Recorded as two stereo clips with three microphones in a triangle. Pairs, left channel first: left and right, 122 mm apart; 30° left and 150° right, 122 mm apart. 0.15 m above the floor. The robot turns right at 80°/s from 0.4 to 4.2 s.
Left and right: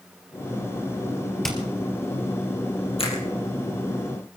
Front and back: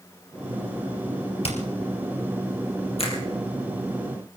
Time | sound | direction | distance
1.4 | hammering | straight ahead | 3.5 m
3.0 | a finger snap | 55° left | 4.5 m